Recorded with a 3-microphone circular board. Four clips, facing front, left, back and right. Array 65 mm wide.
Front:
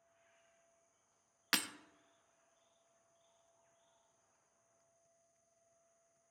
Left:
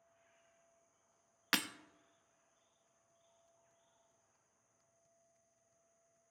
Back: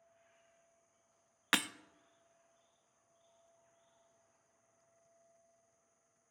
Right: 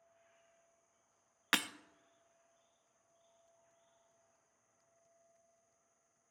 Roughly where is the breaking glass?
Behind right.